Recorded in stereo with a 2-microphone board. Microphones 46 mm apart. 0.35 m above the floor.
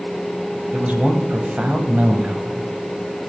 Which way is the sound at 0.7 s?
30° right (ahead or behind).